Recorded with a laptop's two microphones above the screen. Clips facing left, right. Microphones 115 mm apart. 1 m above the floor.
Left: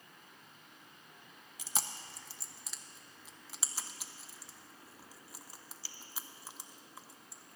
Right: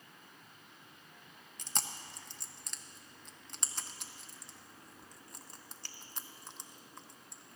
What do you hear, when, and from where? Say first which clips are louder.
1.6 s chewing: even; 5° left (ahead or behind), 1.0 m